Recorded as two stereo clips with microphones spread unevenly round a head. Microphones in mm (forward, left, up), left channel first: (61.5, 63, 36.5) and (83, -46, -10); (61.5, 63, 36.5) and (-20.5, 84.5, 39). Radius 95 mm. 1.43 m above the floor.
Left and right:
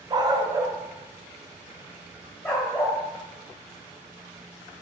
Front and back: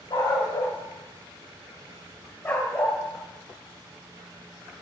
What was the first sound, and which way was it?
A dog barking, 15° right.